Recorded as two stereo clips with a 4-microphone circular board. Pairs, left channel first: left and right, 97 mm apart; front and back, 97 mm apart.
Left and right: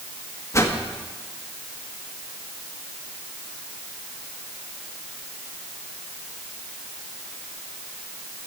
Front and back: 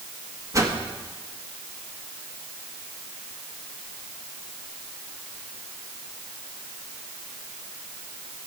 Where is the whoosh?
135° left, 1.4 m.